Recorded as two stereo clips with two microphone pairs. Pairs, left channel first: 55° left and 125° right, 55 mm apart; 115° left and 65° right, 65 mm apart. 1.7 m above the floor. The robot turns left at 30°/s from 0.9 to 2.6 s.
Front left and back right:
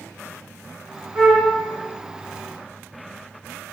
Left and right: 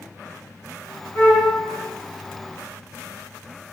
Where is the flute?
160° left, 2.5 m; by 1.5 s 150° left, 2.5 m.